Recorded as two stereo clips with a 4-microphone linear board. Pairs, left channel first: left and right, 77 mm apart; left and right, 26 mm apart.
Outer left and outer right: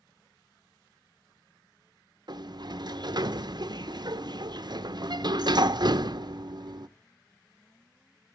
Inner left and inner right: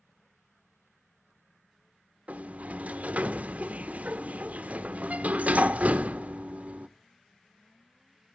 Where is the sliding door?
65° right (ahead or behind), 0.5 m.